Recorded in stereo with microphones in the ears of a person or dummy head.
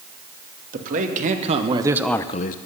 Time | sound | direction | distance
0.7 | a man speaking | 45° right (ahead or behind) | 2 m